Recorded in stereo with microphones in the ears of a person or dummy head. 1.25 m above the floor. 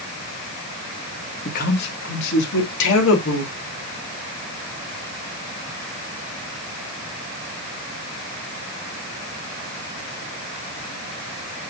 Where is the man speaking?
45° left (ahead or behind), 1.6 m; by 3.5 s 75° left (ahead or behind), 3 m.